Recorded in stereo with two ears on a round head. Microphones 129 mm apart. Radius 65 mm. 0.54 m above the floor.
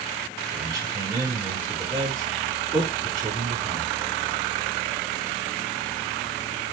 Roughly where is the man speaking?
Right.